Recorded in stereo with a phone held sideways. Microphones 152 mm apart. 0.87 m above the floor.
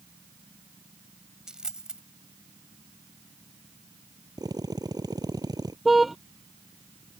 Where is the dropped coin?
5° right (ahead or behind).